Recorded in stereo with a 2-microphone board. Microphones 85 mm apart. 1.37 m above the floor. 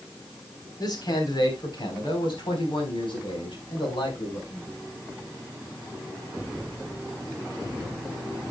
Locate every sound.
0.8 s a man speaking: 55° left (ahead or behind), 4 m; by 4.7 s 85° left, 5.5 m